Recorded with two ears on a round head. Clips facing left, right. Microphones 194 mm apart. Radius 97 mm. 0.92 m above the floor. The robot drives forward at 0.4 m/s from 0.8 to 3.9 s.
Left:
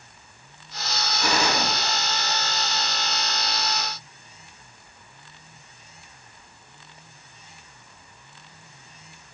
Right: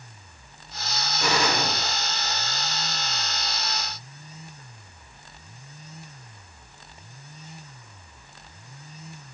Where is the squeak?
No squeak in this recording.